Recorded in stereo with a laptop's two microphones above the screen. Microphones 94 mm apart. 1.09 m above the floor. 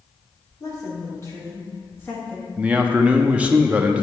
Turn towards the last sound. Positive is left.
turn(degrees=-15)  # may be behind; listen again after turning